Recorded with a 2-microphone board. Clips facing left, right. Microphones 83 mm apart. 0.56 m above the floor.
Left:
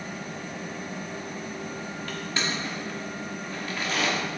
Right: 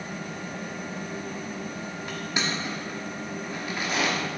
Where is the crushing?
15° right (ahead or behind), 1.1 m.